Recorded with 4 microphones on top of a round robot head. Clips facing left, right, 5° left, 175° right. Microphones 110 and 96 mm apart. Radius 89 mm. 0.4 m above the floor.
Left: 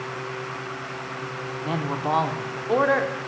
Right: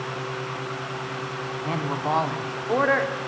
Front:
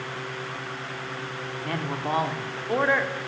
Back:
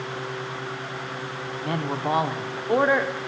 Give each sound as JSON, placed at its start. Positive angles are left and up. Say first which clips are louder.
{"t": 1.6, "sound": "a man speaking", "louder": "left 1 dB, back 3 dB", "azimuth_deg": 160, "distance_m": 0.7}